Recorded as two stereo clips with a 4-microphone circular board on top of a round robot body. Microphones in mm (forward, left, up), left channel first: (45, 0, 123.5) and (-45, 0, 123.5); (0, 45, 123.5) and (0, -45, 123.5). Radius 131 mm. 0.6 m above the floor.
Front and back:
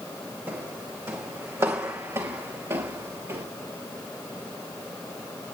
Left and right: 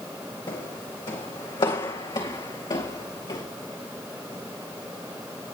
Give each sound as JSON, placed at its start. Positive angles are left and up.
{"t": 0.5, "sound": "footsteps", "azimuth_deg": 115, "distance_m": 2.5}